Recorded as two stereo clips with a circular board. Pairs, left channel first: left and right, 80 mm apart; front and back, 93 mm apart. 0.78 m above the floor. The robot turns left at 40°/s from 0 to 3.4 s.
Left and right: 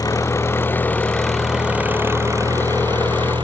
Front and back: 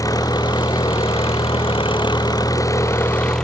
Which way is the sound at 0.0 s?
55° left.